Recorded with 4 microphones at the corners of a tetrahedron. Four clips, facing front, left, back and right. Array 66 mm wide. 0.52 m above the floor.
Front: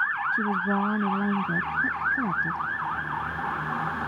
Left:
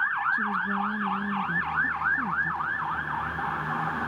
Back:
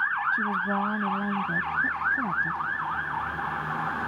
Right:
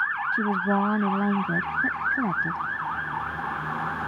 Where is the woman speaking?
80° right.